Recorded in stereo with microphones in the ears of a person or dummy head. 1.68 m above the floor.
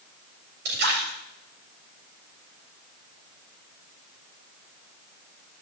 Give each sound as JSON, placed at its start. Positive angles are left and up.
{"t": 0.7, "sound": "a splash", "side_deg": -60, "distance_m": 7.5}